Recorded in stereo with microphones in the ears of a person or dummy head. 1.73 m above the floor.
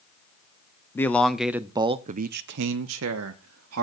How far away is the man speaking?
About 0.8 m.